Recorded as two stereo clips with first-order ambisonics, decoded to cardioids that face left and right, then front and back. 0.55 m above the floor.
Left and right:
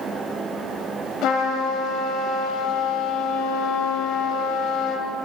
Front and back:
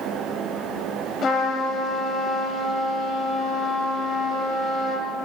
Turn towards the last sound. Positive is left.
turn(degrees=55)